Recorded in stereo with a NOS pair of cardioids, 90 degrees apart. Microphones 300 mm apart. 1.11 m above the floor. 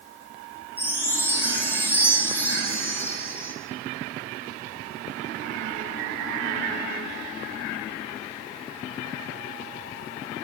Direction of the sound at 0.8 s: 5° left.